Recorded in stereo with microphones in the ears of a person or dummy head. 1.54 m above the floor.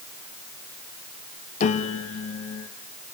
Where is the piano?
40° left (ahead or behind), 1.5 m.